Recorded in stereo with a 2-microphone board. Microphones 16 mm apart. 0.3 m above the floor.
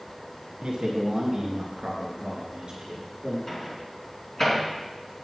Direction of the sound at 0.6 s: 65° right (ahead or behind).